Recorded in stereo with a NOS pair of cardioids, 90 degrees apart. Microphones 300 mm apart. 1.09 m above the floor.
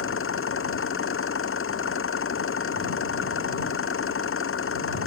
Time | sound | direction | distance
0.0 | an engine running | 45° left | ?